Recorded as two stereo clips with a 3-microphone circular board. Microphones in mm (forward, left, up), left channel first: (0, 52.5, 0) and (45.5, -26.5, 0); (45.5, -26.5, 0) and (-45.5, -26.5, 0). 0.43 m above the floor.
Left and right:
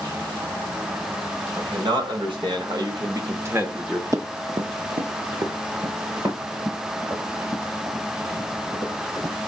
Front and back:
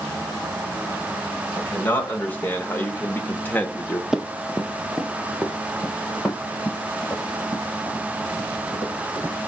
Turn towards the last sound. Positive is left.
turn(degrees=-95)